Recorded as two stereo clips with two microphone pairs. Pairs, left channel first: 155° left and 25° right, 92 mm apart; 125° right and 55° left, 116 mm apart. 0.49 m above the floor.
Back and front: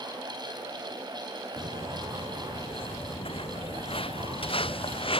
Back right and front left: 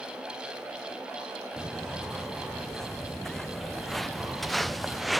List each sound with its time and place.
1.6 s footsteps: 150° left; by 5.2 s 145° left